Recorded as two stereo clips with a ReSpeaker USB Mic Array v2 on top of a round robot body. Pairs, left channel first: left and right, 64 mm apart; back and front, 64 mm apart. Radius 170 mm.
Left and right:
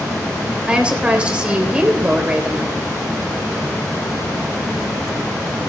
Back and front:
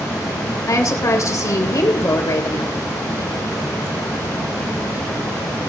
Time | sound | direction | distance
0.7 | a woman speaking | 160° right | 3.5 m